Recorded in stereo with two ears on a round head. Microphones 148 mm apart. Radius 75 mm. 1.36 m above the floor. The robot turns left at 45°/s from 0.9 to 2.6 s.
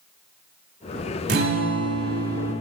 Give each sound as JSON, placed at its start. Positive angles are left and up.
{"t": 1.3, "sound": "a guitar", "azimuth_deg": -110, "distance_m": 3.5}